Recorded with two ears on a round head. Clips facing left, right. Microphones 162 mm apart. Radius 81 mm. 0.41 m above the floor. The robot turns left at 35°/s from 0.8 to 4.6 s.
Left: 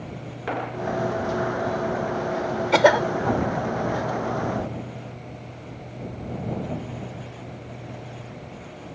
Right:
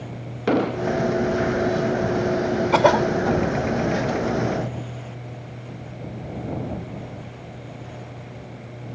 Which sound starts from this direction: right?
An explosion, at 0.5 s.